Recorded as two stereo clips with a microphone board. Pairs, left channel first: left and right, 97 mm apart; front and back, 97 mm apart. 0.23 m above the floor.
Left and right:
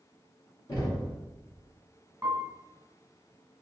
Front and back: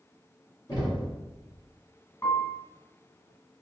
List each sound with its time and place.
0.7 s knocking: 45° left, 2.0 m
2.2 s a piano: 40° right, 1.1 m